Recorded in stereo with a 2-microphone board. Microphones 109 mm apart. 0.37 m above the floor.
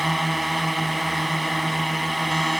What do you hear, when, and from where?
0.0 s a drone: centre (ahead or behind)